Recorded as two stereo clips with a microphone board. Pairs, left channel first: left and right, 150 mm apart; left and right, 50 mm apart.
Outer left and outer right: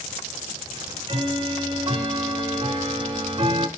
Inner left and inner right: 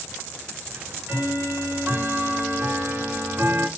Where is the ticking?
35° right (ahead or behind), 0.7 m.